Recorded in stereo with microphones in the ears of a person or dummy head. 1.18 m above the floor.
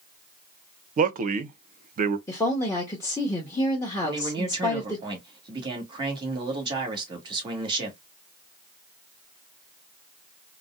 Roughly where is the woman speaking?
Centre.